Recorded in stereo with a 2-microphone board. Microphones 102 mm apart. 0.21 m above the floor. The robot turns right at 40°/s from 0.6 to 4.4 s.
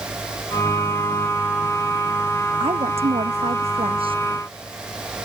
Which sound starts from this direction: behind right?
A woman speaking, at 2.6 s.